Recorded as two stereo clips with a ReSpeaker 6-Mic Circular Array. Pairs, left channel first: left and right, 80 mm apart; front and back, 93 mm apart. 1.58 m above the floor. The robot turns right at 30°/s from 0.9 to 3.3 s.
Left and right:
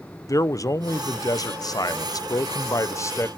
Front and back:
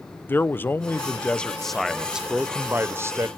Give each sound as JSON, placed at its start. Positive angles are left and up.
{"t": 0.3, "sound": "a man speaking", "azimuth_deg": 65, "distance_m": 0.5}